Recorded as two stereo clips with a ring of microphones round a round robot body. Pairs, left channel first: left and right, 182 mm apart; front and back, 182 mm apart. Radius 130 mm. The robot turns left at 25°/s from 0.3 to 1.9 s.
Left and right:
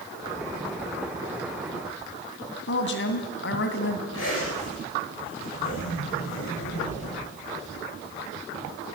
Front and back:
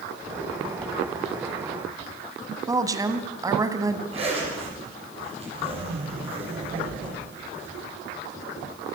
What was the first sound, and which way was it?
A woman speaking, 110° left.